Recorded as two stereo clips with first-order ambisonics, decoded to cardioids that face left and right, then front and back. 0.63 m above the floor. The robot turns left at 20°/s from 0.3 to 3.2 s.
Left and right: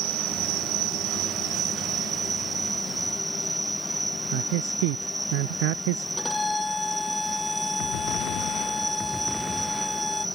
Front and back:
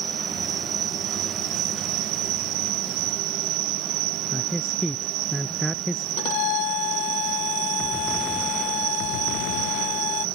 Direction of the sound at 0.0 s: 115° right.